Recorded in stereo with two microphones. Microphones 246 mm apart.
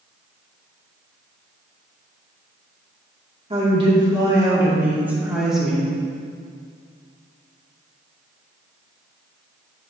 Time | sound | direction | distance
3.5 | a woman speaking | 25° right (ahead or behind) | 2.5 m